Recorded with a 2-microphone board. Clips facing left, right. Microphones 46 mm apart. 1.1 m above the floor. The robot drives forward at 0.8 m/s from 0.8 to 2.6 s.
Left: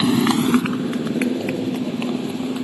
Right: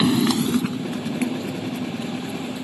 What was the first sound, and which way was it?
A motorcycle, 5° left (ahead or behind).